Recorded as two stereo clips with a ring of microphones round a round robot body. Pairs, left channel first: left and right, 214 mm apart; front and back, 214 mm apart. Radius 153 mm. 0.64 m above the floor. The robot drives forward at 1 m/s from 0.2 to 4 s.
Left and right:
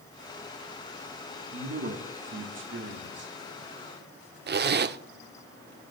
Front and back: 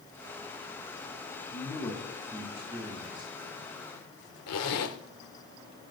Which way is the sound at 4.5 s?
45° right.